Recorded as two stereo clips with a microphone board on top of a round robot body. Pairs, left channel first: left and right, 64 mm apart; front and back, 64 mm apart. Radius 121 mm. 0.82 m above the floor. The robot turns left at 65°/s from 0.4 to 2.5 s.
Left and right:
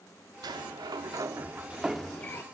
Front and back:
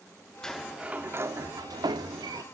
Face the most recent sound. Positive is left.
turn(degrees=145)